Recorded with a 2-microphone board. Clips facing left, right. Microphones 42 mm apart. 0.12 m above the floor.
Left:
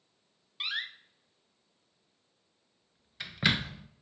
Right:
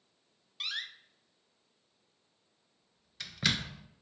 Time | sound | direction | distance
0.6 | a door slam | 20° left (ahead or behind) | 1.0 m